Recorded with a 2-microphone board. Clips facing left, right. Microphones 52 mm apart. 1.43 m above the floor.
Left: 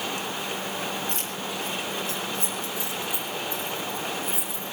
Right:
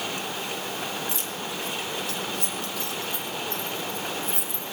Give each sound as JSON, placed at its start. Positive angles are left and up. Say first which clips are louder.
{"t": 1.1, "sound": "keys jangling", "louder": "left 1 dB", "side_deg": 45, "distance_m": 3.5}